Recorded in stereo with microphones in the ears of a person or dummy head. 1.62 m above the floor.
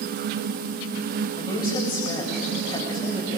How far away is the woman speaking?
About 7.5 m.